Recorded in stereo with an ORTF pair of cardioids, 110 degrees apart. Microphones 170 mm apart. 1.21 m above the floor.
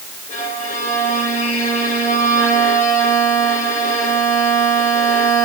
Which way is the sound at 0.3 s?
50° left.